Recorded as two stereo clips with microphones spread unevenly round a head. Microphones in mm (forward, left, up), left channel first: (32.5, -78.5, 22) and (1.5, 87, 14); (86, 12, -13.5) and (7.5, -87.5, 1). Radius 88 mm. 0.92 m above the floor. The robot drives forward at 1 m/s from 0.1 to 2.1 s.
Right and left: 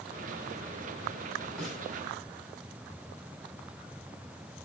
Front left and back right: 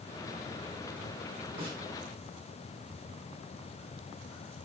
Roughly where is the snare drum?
Behind.